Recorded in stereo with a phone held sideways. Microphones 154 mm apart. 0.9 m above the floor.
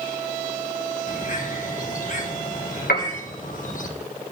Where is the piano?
80° left, 1.5 m.